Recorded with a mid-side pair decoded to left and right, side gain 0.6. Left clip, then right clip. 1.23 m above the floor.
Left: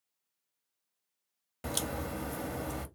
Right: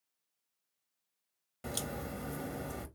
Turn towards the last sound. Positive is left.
turn(degrees=30)